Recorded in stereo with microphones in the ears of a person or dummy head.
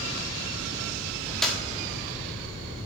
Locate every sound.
1.4 s a clap: 5° left (ahead or behind), 1.4 m